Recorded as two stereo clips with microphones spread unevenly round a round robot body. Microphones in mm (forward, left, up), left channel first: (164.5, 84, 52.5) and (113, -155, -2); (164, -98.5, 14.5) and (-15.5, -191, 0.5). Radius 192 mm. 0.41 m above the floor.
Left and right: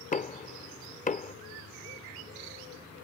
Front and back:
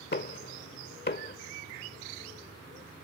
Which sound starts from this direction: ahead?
Knocking, at 0.1 s.